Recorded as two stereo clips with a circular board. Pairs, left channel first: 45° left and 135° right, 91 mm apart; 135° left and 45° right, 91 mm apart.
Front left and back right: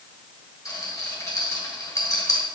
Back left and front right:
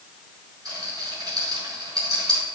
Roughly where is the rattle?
Ahead.